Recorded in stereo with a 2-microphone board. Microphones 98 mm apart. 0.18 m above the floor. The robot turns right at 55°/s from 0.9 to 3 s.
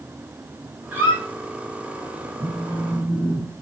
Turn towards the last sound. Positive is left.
turn(degrees=-40)